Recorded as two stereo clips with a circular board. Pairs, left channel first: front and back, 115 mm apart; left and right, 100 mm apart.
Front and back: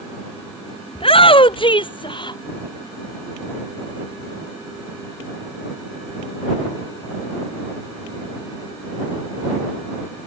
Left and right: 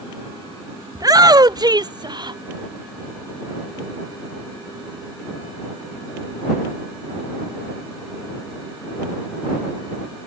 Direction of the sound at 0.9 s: 40° right.